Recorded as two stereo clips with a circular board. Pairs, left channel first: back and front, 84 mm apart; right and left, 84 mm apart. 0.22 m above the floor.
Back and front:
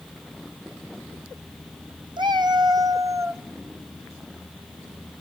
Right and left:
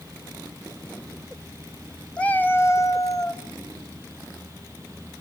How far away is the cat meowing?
About 0.9 m.